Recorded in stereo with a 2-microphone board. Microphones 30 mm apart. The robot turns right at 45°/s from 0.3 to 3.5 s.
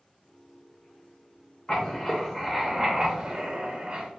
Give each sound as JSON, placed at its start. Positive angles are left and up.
{"t": 1.7, "sound": "writing", "azimuth_deg": 145, "distance_m": 0.6}